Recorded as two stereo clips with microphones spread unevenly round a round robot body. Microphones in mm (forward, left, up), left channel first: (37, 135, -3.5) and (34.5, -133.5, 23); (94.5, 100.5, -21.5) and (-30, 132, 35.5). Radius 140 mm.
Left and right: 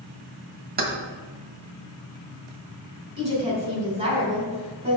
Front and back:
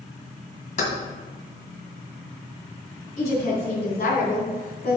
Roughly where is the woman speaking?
Ahead.